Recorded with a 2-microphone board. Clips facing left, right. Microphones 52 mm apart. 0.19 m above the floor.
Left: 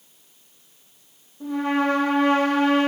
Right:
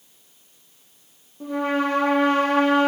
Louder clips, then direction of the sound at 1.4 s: Left 1 dB; 50° right (ahead or behind).